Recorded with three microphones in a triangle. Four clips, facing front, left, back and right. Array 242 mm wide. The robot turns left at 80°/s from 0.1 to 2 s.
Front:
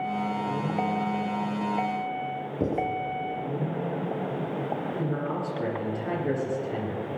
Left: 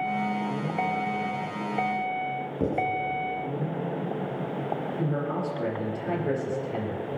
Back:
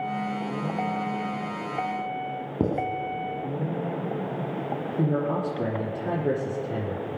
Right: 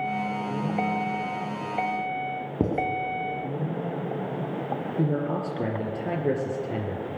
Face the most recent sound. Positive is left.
turn(degrees=-125)